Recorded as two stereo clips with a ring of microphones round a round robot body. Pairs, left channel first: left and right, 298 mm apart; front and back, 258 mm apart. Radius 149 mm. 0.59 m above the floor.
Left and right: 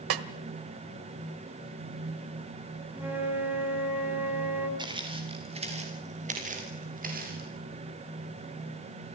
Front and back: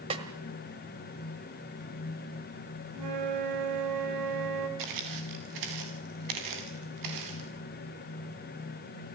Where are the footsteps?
165° right, 5.5 m; by 7.5 s 150° right, 8.5 m.